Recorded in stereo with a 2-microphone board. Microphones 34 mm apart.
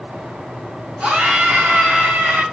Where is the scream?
40° right (ahead or behind), 2.5 m.